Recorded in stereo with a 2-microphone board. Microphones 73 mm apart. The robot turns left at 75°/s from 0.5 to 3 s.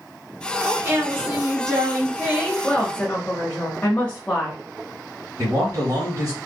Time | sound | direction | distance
0.6 | a woman speaking | 25° right | 1.7 m
2.6 | a woman speaking | 10° left (ahead or behind) | 1.1 m
5.4 | a man speaking | 45° right (ahead or behind) | 1.5 m